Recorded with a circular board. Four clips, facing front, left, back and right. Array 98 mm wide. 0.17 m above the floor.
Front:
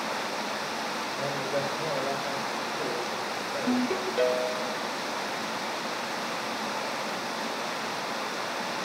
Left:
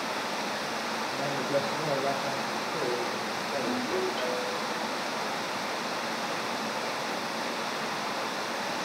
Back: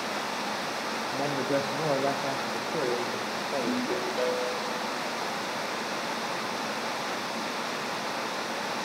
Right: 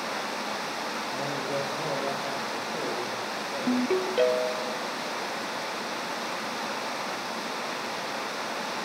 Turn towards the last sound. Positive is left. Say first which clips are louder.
# right 7 dB, front 2 dB
turn(degrees=-75)